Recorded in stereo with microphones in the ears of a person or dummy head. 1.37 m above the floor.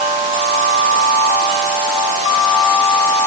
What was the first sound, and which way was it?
Only background noise.